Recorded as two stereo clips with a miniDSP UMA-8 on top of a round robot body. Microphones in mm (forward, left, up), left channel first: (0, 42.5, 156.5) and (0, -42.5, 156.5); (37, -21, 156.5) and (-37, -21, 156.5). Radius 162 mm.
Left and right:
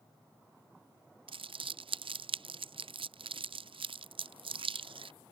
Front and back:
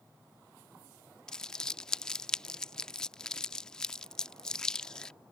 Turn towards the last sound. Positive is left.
turn(degrees=-80)